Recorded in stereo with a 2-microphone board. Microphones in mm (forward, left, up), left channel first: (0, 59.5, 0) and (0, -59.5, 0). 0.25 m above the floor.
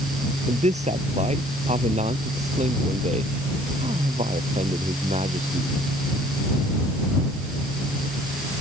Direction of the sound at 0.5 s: 75° right (ahead or behind).